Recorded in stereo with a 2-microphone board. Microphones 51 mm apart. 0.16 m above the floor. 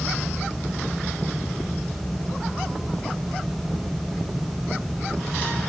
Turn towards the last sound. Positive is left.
No sound to turn to.